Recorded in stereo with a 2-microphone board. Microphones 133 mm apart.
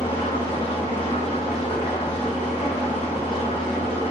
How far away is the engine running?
About 1.4 m.